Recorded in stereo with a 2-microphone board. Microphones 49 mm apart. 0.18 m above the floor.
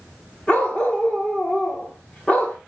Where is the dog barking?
25° left (ahead or behind), 6 m.